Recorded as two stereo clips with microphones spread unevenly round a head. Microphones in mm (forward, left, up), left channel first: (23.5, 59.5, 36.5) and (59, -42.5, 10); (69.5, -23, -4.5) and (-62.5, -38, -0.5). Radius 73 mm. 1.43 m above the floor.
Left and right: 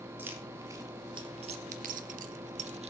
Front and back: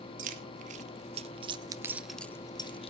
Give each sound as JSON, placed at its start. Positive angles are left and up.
{"t": 0.2, "sound": "keys jangling", "azimuth_deg": -150, "distance_m": 1.8}